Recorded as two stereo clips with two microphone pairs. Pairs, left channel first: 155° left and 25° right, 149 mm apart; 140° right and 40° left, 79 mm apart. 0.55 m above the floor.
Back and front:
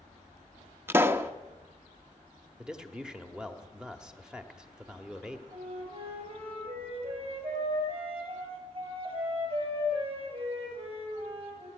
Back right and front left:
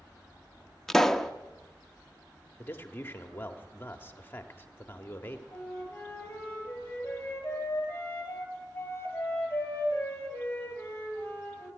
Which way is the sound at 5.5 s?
70° right.